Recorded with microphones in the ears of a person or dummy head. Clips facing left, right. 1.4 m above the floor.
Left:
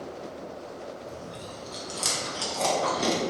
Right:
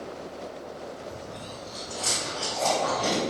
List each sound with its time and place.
1.1 s chewing: 65° left (ahead or behind), 0.8 m